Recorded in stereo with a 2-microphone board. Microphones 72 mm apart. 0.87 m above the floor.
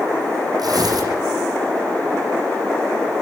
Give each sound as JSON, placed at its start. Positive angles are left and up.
{"t": 0.6, "sound": "tearing paper", "side_deg": -70, "distance_m": 8.5}